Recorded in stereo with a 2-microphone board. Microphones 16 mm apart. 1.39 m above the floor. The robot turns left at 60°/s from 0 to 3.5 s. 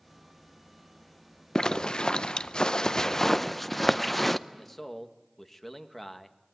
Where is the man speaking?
5° left (ahead or behind), 1.7 m.